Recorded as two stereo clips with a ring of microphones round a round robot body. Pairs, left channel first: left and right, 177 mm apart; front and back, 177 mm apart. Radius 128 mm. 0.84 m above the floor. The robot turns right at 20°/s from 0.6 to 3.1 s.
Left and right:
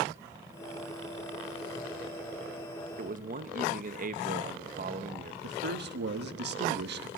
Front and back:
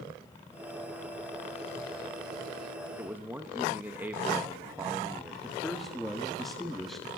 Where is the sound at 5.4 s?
90° right, 1.1 m.